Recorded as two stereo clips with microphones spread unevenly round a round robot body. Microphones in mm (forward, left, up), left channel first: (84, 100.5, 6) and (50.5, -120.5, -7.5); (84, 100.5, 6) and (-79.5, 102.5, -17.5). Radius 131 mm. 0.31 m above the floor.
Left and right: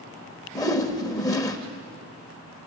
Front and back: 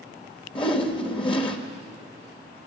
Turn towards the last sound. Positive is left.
turn(degrees=20)